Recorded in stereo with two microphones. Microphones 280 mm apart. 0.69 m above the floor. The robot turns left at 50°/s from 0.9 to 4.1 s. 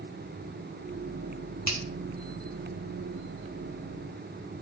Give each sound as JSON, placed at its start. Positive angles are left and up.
{"t": 1.7, "sound": "a finger snap", "side_deg": -70, "distance_m": 2.5}